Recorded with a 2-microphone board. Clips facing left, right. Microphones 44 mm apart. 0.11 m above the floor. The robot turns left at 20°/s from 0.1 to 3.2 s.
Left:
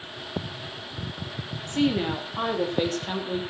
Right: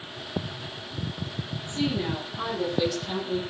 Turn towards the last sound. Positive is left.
turn(degrees=35)